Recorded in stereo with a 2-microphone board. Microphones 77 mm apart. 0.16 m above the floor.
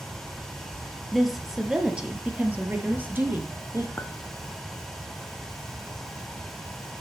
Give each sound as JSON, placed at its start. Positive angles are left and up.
{"t": 1.1, "sound": "a woman speaking", "side_deg": 0, "distance_m": 3.5}
{"t": 4.0, "sound": "a clink", "side_deg": 30, "distance_m": 1.2}